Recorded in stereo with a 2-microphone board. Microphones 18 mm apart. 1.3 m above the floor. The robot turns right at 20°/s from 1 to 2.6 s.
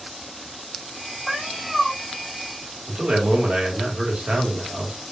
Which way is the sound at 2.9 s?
80° right.